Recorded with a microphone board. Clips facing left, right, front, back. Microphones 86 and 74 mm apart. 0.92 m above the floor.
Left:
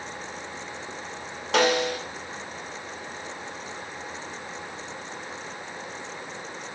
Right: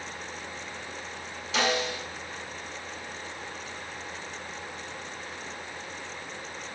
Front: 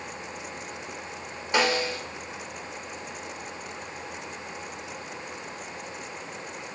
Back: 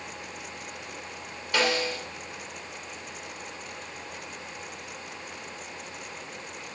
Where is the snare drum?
70° left, 2 m.